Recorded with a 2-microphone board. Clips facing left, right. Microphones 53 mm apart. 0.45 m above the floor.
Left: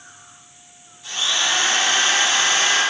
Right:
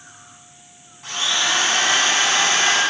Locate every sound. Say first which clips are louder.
1.0 s a drill: right 1 dB; 55° right (ahead or behind), 2.5 m